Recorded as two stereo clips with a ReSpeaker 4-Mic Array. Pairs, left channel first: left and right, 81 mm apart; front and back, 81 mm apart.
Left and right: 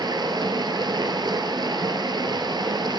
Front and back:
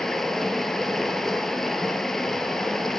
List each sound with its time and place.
0.0 s running water: 85° right, 1.4 m